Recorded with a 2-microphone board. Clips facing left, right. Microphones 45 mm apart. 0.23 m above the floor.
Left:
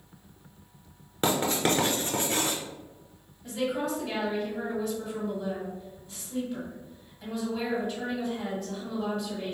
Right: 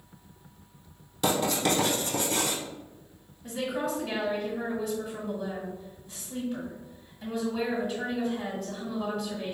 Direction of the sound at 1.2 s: 35° left (ahead or behind).